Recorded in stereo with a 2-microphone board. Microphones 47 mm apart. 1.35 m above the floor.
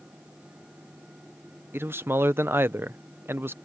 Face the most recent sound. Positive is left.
turn(degrees=-50)  # may be behind; listen again after turning